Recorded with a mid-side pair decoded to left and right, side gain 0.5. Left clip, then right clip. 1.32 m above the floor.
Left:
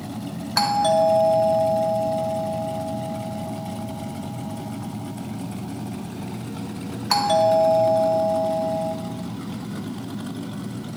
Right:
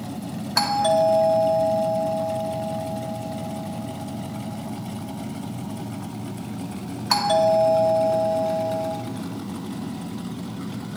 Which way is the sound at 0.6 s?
Straight ahead.